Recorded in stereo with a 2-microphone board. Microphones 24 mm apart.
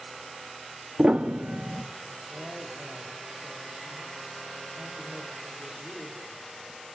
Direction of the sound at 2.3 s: 70° right (ahead or behind).